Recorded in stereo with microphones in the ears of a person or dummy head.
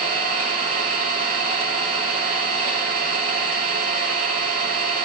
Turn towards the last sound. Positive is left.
turn(degrees=-45)  # may be behind; listen again after turning